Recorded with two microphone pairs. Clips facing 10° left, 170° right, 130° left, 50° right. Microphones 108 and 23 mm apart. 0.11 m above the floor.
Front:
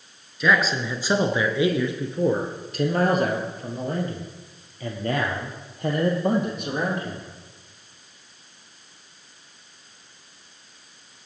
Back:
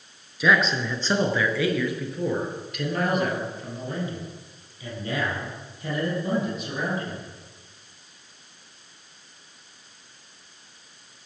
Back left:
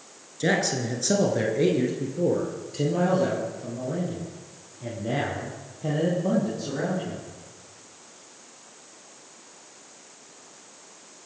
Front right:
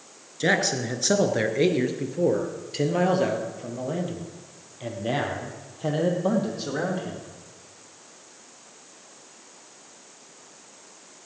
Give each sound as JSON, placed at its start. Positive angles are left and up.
{"t": 0.4, "sound": "a man speaking", "azimuth_deg": -85, "distance_m": 1.3}